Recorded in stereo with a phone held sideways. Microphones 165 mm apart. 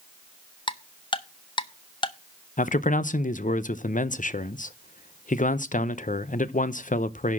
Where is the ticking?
30° left (ahead or behind), 0.6 m.